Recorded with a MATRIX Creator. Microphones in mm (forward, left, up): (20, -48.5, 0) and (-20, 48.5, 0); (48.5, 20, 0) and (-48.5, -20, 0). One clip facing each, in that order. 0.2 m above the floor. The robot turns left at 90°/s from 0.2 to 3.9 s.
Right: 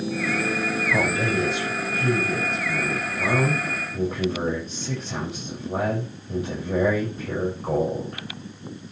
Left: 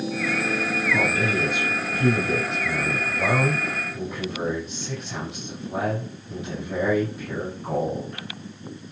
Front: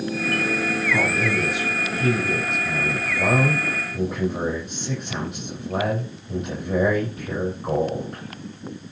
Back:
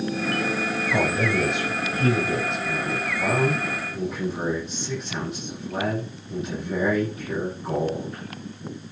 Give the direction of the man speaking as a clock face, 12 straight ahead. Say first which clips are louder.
Right 1 dB, back 2 dB; 4 o'clock.